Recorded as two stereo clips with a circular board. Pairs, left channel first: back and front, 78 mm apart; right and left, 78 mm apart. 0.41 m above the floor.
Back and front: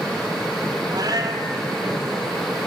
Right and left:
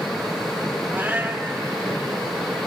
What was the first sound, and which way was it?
A cat meowing, 30° left.